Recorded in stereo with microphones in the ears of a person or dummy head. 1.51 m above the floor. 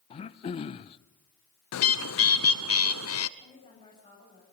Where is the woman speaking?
25° left (ahead or behind), 8.5 m.